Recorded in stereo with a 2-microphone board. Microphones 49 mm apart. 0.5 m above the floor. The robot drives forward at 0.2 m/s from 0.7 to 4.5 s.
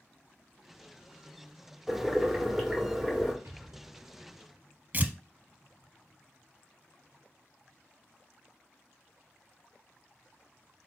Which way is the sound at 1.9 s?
10° right (ahead or behind).